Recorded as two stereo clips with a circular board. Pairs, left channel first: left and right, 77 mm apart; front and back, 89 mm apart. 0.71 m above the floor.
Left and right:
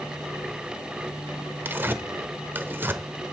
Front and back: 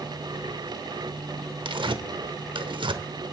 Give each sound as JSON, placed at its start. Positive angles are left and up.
{"t": 1.6, "sound": "tearing paper", "azimuth_deg": -150, "distance_m": 0.8}